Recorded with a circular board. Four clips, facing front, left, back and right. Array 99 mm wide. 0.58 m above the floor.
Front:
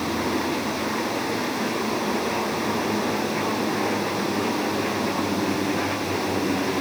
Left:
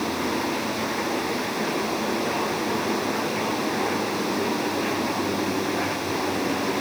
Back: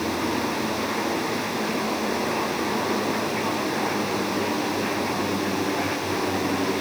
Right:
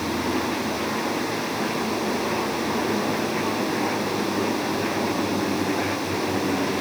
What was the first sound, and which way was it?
Only background noise.